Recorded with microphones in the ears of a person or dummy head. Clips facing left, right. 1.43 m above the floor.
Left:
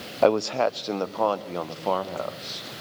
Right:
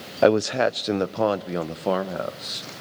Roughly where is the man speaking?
Centre.